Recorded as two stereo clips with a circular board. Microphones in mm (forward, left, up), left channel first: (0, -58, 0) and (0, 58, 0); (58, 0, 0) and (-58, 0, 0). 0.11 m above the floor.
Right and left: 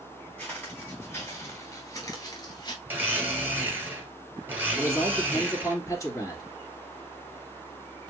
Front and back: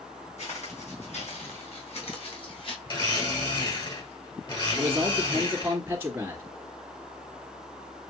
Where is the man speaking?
120° right, 2.0 m.